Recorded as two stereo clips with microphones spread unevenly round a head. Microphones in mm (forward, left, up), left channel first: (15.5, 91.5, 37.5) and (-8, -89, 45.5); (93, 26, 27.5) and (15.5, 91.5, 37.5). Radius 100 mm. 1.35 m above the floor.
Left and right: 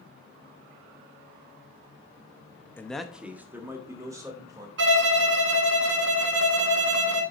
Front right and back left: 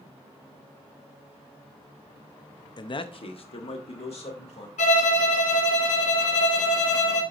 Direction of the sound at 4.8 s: 70° right.